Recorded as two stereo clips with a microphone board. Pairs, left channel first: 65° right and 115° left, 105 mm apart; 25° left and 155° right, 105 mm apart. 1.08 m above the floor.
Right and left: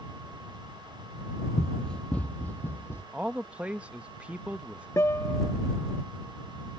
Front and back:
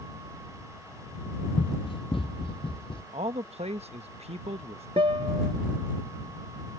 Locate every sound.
1.6 s running footsteps: 20° left; by 3.0 s straight ahead
3.1 s a man speaking: 170° right
5.0 s a guitar: 130° right